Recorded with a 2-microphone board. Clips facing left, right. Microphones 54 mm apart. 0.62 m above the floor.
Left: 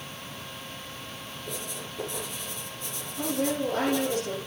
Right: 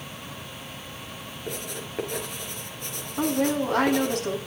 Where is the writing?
60° right (ahead or behind), 4 m.